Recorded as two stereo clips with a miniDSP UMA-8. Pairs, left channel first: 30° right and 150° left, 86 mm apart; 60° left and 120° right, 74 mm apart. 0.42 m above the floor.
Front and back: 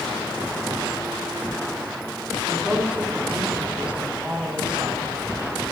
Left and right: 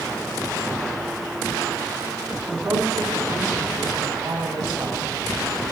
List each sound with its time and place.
2.5 s a woman speaking: 130° right, 5 m